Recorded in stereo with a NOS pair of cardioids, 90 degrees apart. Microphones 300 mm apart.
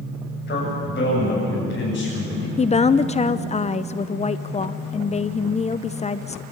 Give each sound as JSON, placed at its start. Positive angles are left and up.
{"t": 0.5, "sound": "a man speaking", "azimuth_deg": 35, "distance_m": 9.0}
{"t": 2.6, "sound": "a woman speaking", "azimuth_deg": 20, "distance_m": 0.7}